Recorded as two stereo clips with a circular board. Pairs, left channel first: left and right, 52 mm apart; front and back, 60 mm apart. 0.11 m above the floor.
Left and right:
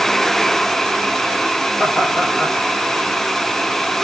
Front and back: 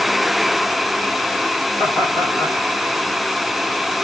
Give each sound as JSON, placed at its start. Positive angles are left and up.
{"t": 1.8, "sound": "laughter", "azimuth_deg": 5, "distance_m": 6.5}